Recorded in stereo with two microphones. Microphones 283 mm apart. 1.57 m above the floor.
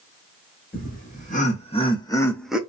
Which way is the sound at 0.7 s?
30° left (ahead or behind).